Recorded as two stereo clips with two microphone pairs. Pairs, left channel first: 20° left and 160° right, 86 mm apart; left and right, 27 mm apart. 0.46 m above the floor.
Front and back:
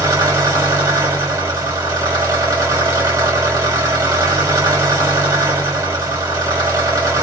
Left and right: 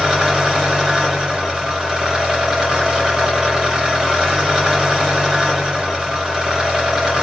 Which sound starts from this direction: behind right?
An engine running, at 0.0 s.